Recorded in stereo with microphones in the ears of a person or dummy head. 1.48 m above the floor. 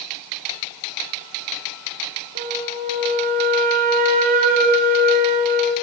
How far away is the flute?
About 3.5 m.